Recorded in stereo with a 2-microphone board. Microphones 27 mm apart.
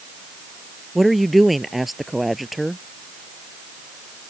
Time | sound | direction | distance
0.9 | a woman speaking | centre (ahead or behind) | ?